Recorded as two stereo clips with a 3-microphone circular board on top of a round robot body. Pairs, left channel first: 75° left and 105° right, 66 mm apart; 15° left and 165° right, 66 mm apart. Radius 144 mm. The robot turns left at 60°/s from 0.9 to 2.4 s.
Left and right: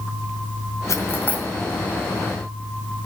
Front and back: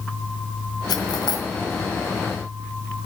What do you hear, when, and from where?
0.9 s cutlery clinking: 30° left, 1.9 m; by 1.5 s straight ahead, 1.9 m